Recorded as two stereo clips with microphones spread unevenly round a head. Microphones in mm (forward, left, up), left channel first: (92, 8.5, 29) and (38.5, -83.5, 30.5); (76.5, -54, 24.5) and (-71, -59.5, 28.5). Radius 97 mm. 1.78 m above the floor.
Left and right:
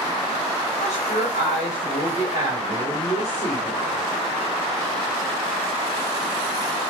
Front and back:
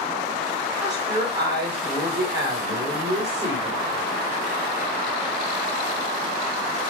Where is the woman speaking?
110° left, 6.5 m.